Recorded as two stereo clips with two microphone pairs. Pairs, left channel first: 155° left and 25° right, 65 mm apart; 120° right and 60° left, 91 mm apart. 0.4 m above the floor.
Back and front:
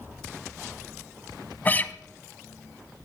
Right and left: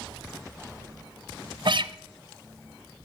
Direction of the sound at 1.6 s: 90° left.